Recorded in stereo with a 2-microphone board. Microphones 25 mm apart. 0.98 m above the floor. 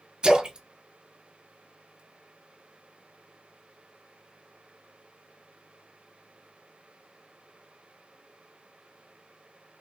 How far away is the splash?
About 2.0 m.